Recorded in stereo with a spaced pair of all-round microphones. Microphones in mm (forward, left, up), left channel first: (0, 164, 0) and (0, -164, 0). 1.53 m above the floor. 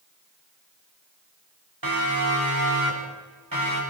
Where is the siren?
85° right, 6 m; by 3.8 s 75° right (ahead or behind), 8.5 m.